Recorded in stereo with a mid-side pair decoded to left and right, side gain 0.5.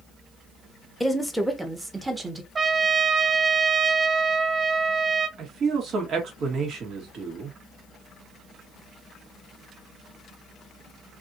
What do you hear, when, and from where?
1.0 s a woman speaking: 5° left, 1.2 m; by 2.5 s 25° right, 1.6 m
2.5 s a trumpet: 30° right, 0.7 m
5.4 s a man speaking: 50° right, 1.7 m